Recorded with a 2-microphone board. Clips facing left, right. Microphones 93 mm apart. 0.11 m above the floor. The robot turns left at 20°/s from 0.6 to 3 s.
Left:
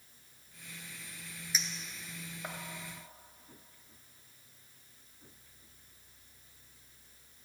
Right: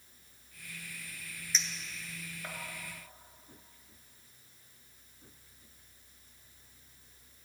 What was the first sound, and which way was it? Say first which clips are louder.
A clink: even; 10° left (ahead or behind).